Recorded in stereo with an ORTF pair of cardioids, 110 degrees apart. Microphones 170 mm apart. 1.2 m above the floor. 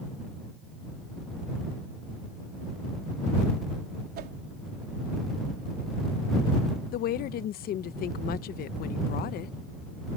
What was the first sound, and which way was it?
A whoosh, 70° right.